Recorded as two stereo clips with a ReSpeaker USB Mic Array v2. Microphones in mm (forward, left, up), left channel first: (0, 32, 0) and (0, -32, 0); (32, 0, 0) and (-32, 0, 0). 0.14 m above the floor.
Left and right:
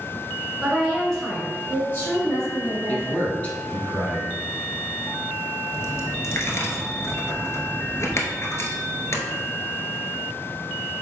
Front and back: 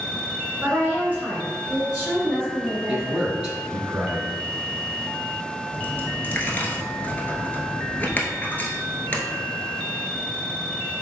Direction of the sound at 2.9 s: 115° left.